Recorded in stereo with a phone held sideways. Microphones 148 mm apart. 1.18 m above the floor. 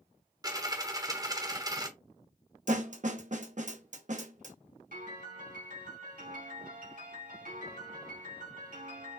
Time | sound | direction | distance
0.4 | a dropped coin | 25° right (ahead or behind) | 0.9 m
2.7 | a snare drum | 55° right (ahead or behind) | 0.6 m
4.9 | a piano | 80° right | 3.5 m